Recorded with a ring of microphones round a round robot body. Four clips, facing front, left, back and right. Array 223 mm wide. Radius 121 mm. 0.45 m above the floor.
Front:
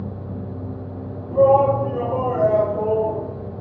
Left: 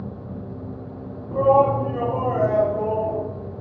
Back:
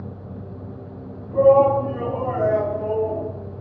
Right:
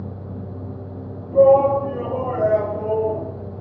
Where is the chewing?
I don't hear chewing.